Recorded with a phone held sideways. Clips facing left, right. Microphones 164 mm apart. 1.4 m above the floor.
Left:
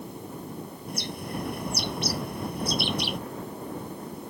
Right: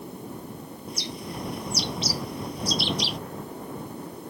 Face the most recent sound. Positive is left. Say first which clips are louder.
# left 1 dB
turn(degrees=55)  # may be behind; listen again after turning